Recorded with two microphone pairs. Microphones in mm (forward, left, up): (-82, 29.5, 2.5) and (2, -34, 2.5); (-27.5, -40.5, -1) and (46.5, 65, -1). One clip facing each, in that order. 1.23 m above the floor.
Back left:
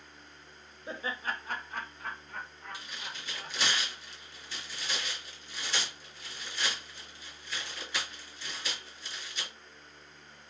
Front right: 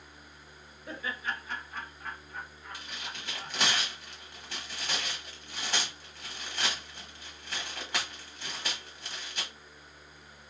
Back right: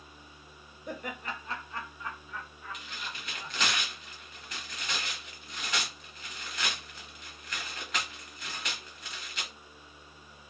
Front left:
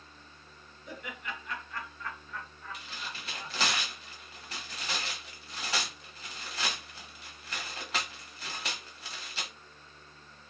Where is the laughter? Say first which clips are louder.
Back left 1 dB, back right 4 dB; 150° right, 0.7 m; by 3.6 s 135° left, 1.6 m.